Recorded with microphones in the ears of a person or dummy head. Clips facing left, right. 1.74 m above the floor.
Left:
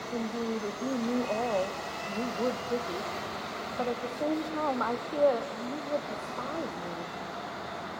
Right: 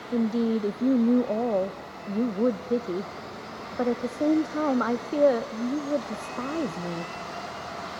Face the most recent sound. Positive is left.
turn(degrees=-40)  # may be behind; listen again after turning